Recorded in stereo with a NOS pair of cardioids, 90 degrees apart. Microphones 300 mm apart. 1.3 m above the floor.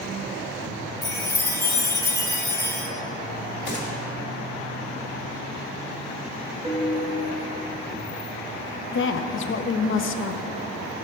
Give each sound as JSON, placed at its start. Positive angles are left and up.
{"t": 1.0, "sound": "a chime", "azimuth_deg": 15, "distance_m": 1.5}
{"t": 3.7, "sound": "a gunshot", "azimuth_deg": 35, "distance_m": 2.0}
{"t": 6.6, "sound": "a piano", "azimuth_deg": -20, "distance_m": 1.0}
{"t": 8.9, "sound": "a woman speaking", "azimuth_deg": 45, "distance_m": 0.6}